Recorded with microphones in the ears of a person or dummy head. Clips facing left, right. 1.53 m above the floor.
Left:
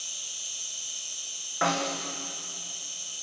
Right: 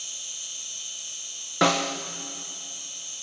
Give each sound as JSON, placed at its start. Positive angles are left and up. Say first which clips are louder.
{"t": 0.0, "sound": "an insect", "louder": "even", "side_deg": -30, "distance_m": 4.5}
{"t": 1.6, "sound": "a snare drum", "louder": "right 5 dB", "side_deg": -60, "distance_m": 1.3}